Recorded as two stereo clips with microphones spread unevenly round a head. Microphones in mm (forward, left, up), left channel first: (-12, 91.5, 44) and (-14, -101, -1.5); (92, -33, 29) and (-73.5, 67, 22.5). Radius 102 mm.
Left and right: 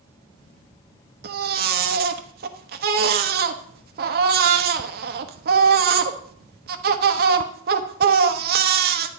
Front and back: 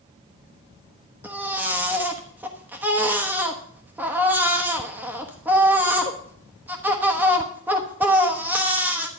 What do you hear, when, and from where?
1.2 s a baby crying: 130° right, 1.1 m